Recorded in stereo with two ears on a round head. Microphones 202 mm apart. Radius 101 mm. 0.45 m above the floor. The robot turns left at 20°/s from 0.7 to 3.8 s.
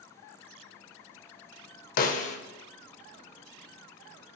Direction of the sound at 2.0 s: 40° left (ahead or behind).